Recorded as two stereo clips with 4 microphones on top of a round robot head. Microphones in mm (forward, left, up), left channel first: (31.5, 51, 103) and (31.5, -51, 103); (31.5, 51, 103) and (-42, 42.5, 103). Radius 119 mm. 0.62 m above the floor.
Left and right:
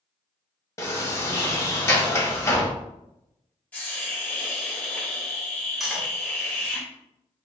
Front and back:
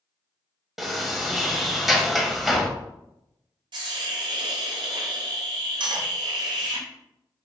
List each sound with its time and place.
0.8 s a sliding door: 105° left, 1.2 m
3.7 s a hiss: 170° left, 0.8 m
5.8 s cutlery clinking: straight behind, 0.9 m